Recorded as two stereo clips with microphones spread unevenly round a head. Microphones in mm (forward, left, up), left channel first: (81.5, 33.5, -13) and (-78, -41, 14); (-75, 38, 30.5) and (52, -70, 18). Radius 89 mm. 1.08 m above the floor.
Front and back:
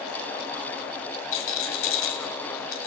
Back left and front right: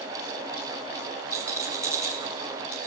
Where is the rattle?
35° left, 4 m.